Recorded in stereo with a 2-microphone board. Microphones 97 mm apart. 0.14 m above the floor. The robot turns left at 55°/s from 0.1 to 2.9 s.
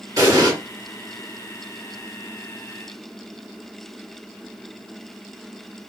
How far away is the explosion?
About 1.7 m.